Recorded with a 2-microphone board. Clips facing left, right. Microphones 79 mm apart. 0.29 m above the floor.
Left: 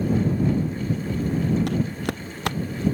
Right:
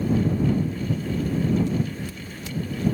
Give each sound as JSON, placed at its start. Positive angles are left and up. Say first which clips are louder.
{"t": 1.7, "sound": "footsteps", "louder": "left 2 dB", "side_deg": 75}